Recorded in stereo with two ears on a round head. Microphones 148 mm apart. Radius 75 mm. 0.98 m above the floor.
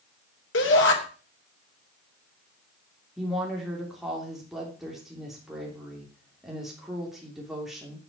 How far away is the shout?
About 4 m.